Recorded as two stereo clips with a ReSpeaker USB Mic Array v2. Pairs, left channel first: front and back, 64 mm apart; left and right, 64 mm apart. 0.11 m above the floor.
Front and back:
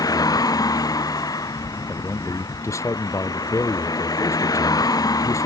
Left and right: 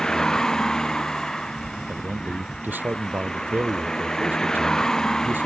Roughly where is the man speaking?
Ahead right.